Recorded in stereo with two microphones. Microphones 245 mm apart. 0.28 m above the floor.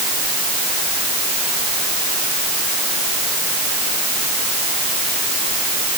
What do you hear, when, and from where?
Only background noise.